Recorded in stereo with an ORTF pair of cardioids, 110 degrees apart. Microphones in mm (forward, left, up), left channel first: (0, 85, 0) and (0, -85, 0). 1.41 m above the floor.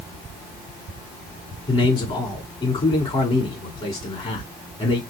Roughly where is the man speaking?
Ahead left.